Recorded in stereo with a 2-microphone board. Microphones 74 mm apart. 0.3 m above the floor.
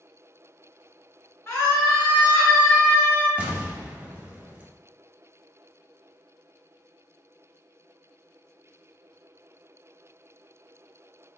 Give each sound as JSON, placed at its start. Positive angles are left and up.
{"t": 1.5, "sound": "a scream", "side_deg": 25, "distance_m": 1.4}
{"t": 3.4, "sound": "an explosion", "side_deg": -25, "distance_m": 0.8}